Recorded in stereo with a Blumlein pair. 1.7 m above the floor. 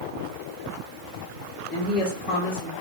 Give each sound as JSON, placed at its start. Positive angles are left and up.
{"t": 1.7, "sound": "a woman speaking", "azimuth_deg": 30, "distance_m": 1.6}